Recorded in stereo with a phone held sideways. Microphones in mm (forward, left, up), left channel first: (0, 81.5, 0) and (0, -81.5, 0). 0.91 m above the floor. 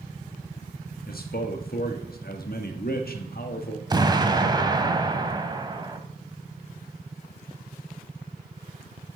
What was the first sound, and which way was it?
A man speaking, 70° left (ahead or behind).